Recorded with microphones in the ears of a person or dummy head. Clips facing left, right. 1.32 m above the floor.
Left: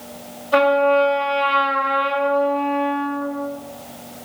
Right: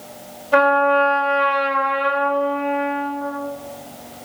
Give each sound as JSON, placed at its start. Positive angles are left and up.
{"t": 0.5, "sound": "a trumpet", "side_deg": -35, "distance_m": 1.0}